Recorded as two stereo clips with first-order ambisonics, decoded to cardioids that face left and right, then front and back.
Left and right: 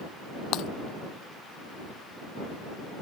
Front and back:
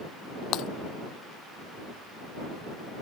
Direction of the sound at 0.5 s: 45° left.